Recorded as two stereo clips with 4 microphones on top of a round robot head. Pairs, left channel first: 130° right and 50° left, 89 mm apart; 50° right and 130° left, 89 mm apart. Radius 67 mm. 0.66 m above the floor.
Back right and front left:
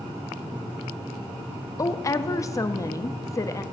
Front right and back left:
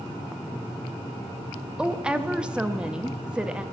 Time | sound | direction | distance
1.8 | a woman speaking | 155° right | 0.6 m